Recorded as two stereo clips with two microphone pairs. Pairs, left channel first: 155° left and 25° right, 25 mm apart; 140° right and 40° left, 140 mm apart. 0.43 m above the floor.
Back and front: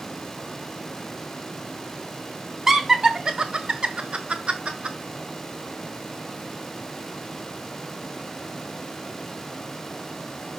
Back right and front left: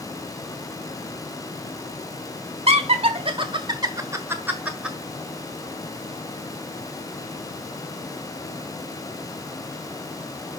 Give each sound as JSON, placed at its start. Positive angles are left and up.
{"t": 2.7, "sound": "laughter", "azimuth_deg": 45, "distance_m": 1.4}